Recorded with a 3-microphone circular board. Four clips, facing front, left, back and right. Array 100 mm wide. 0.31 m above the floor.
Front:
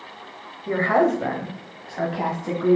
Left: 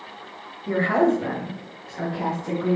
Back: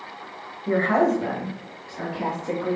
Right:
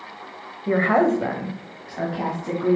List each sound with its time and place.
0.7 s a woman speaking: 95° right, 1.2 m; by 2.8 s 30° right, 2.5 m